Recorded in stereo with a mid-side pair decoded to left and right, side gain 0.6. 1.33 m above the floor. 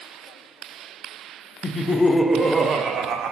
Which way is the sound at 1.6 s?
35° left.